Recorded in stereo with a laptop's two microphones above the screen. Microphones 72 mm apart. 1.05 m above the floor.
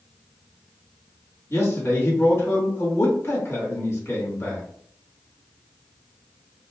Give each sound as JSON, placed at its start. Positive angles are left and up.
{"t": 1.5, "sound": "a man speaking", "side_deg": 40, "distance_m": 1.6}